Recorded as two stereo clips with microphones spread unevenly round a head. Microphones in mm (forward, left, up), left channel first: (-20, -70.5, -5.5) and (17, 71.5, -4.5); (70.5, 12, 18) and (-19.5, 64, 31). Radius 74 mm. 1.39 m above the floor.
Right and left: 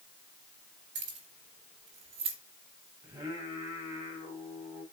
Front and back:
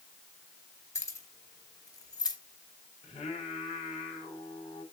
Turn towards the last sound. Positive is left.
turn(degrees=5)